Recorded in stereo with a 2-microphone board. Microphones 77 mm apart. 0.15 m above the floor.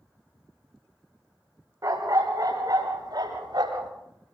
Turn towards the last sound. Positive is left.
turn(degrees=-65)  # may be behind; listen again after turning